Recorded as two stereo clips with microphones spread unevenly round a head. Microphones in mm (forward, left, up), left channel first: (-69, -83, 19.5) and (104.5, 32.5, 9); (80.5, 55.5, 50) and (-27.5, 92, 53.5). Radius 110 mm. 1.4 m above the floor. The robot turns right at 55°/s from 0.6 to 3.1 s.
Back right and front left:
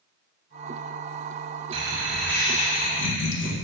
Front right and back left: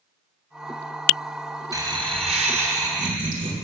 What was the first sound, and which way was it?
Laughter, 100° left.